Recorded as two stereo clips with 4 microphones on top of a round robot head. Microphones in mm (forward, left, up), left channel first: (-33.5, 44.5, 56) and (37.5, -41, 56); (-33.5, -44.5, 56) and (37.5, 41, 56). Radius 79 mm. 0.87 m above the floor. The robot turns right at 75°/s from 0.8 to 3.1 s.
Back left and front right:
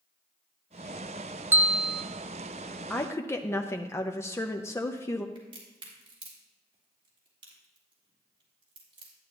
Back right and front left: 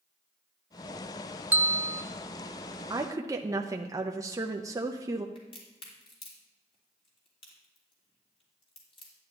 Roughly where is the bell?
Ahead.